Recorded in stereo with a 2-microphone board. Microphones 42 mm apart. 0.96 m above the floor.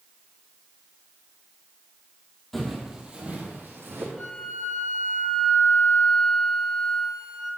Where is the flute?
5° left (ahead or behind), 4 m.